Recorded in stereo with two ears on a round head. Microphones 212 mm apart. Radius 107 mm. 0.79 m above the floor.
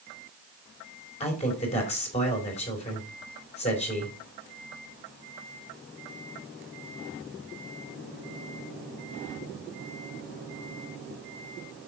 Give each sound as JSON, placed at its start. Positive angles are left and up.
{"t": 1.2, "sound": "a man speaking", "side_deg": 30, "distance_m": 3.5}